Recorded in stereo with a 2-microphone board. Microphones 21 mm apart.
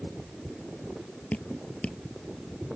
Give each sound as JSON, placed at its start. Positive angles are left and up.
{"t": 1.3, "sound": "dripping", "side_deg": 85}